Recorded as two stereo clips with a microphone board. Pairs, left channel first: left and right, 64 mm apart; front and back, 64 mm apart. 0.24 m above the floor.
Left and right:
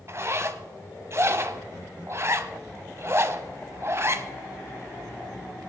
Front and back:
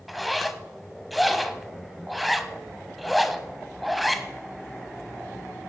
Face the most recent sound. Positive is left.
turn(degrees=-90)